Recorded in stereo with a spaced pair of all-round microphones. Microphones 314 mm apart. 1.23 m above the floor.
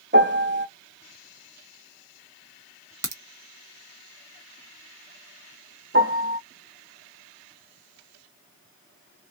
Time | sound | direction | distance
0.1 | a piano | 35° right (ahead or behind) | 1.2 m
3.0 | a crack | 80° right | 1.3 m
5.9 | a piano | 40° right (ahead or behind) | 0.9 m